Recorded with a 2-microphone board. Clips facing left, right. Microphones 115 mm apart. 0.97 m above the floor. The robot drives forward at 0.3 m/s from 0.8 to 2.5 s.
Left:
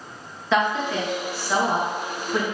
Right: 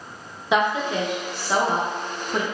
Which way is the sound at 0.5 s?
15° right (ahead or behind).